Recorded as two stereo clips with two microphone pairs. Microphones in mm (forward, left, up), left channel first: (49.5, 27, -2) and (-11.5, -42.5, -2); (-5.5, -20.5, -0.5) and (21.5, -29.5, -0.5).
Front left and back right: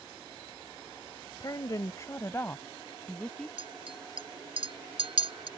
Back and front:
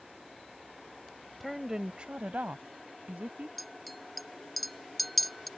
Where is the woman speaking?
75° left; by 3.5 s 35° right.